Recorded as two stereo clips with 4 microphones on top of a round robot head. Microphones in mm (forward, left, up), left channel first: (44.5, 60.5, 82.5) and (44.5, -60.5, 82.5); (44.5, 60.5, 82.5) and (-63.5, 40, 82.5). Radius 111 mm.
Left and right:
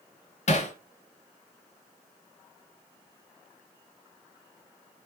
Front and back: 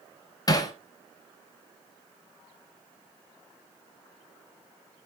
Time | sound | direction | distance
0.5 | hammering | 65° left | 1.6 m